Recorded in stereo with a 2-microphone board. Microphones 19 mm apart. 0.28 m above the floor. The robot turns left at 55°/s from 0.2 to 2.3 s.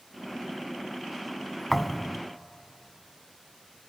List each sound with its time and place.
1.7 s a thud: 10° left (ahead or behind), 0.7 m; by 2.2 s 15° right (ahead or behind), 0.7 m